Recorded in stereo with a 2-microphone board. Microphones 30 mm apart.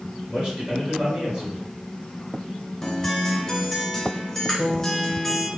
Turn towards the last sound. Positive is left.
turn(degrees=15)  # may be behind; listen again after turning